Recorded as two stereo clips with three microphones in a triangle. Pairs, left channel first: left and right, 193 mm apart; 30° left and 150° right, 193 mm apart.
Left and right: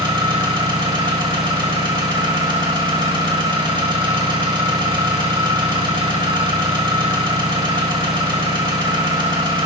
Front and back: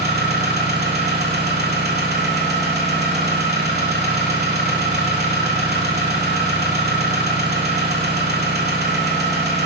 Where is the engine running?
155° right, 1.2 m.